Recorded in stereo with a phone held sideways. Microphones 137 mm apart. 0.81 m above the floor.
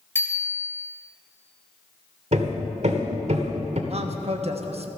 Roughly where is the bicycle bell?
Centre.